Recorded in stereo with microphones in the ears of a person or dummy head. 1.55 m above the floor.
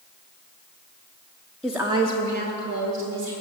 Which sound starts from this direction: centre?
A woman speaking, at 1.6 s.